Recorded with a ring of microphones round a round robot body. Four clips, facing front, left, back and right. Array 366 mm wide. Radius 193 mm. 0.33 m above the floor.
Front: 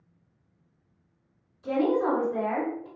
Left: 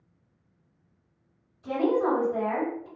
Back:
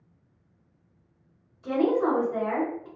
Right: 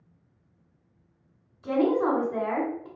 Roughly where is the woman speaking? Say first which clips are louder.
Right 1 dB, back 1 dB; right.